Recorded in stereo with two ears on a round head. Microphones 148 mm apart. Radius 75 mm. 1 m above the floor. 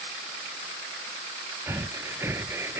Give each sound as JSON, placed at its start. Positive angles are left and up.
{"t": 1.7, "sound": "breathing", "side_deg": -15}